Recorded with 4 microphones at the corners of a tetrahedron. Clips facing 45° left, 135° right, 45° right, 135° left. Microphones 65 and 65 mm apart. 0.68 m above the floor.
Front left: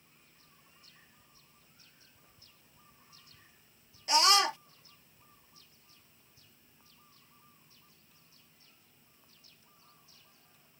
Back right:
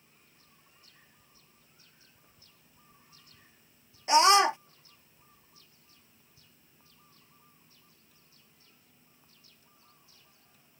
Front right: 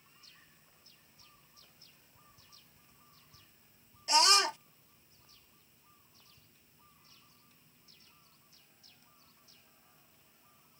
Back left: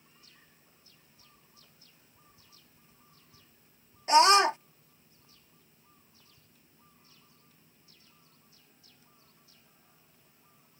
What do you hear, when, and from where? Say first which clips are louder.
4.1 s a scream: back right 6 dB, back left 8 dB; 170° left